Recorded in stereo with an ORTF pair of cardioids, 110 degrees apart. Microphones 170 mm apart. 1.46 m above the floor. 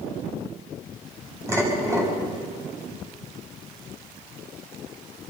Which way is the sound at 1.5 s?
15° right.